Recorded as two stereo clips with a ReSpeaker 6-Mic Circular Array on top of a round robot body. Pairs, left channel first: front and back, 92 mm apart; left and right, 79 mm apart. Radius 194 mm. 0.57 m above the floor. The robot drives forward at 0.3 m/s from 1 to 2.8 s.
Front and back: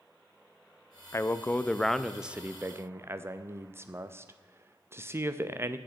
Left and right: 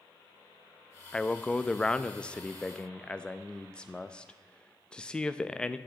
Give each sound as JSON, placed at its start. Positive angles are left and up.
{"t": 1.1, "sound": "a man speaking", "azimuth_deg": 20, "distance_m": 0.7}